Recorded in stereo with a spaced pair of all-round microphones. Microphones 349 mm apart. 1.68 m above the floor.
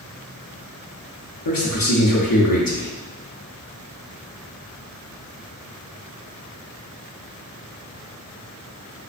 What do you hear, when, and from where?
1.4 s a man speaking: 70° left (ahead or behind), 0.6 m